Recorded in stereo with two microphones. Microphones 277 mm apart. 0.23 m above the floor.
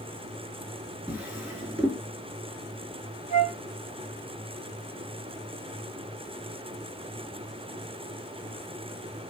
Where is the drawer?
5° right (ahead or behind), 1.9 m.